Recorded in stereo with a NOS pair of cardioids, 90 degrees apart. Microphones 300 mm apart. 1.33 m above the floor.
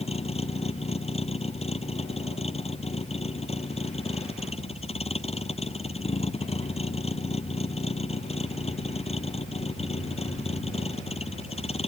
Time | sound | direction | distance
0.0 | a vehicle | 20° left | ?